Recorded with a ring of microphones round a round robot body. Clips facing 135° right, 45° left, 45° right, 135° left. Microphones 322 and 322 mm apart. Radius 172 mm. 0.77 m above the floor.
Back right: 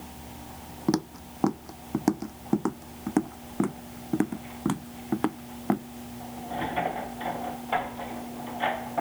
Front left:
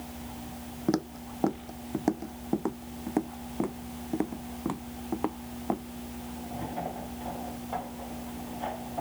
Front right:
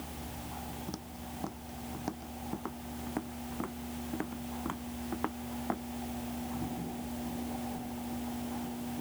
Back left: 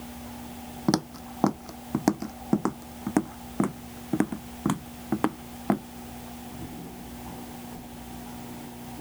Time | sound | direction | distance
0.9 | footsteps | 150° left | ?